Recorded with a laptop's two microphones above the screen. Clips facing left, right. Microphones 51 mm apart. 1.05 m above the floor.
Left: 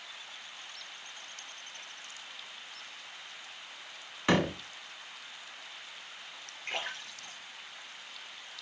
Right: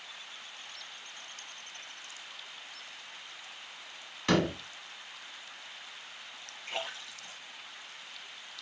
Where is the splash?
45° left (ahead or behind), 5 m.